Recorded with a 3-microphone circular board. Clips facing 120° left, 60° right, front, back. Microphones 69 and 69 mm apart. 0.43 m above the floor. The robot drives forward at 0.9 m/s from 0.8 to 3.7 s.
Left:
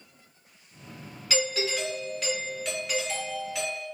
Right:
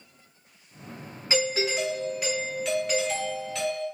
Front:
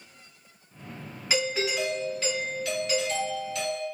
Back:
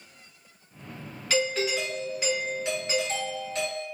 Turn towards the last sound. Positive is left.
turn(degrees=-165)